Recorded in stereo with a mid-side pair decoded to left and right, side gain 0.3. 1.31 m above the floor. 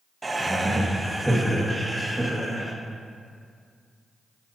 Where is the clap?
No clap in this recording.